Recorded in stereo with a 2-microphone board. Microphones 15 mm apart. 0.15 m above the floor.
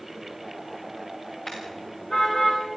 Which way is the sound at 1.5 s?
55° left (ahead or behind).